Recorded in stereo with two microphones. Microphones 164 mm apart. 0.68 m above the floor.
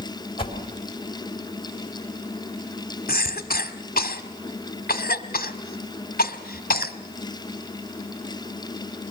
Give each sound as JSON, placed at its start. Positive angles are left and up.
{"t": 0.4, "sound": "a whoosh", "side_deg": 30, "distance_m": 3.5}
{"t": 3.1, "sound": "a cough", "side_deg": 65, "distance_m": 1.6}